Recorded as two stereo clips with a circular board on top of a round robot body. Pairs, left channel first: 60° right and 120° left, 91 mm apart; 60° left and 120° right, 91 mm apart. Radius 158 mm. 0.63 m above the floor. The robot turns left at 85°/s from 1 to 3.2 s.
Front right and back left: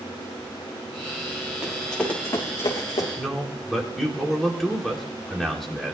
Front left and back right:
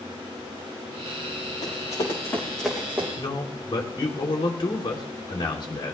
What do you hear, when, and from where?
1.6 s running footsteps: 45° left, 4 m; by 3.1 s 55° right, 3 m
3.2 s a man speaking: 30° left, 3 m